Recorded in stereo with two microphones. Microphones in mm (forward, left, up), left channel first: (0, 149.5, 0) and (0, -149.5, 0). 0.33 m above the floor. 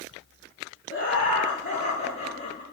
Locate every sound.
0.9 s laughter: 40° left (ahead or behind), 5.5 m; by 2.6 s 30° left (ahead or behind), 4 m